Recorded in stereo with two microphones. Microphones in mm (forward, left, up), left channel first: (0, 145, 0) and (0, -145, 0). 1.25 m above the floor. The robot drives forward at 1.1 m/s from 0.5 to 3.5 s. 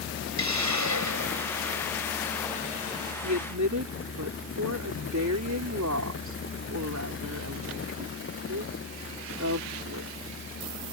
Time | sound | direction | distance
0.4 | a hiss | 80° right | ?
3.2 | a woman speaking | 80° right | ?